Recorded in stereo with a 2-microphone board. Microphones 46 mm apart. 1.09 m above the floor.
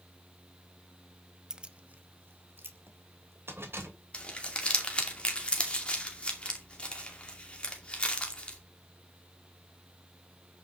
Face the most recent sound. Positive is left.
turn(degrees=25)  # may be behind; listen again after turning